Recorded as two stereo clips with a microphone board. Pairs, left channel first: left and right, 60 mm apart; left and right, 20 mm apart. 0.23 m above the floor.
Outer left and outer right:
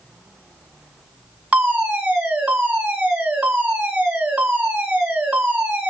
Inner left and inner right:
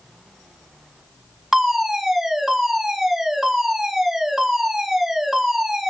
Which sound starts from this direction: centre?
A fire alarm, at 1.5 s.